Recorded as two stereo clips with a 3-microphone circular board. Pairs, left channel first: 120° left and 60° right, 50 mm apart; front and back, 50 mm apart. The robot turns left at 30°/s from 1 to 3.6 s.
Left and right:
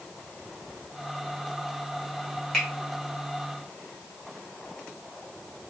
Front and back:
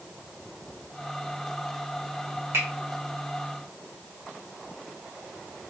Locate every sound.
2.5 s a finger snap: 165° right, 1.5 m; by 2.7 s 170° right, 1.5 m